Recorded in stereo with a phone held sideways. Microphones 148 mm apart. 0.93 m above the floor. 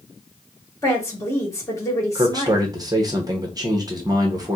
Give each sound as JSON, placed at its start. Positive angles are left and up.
{"t": 0.8, "sound": "a woman speaking", "side_deg": 20, "distance_m": 1.9}
{"t": 2.1, "sound": "a man speaking", "side_deg": -25, "distance_m": 0.9}